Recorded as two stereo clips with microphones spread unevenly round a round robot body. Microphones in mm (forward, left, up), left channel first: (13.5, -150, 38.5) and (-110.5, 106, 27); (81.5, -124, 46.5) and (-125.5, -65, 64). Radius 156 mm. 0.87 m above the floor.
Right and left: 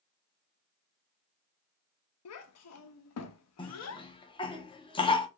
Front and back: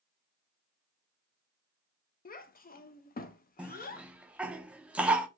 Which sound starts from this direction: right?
A cough, at 3.6 s.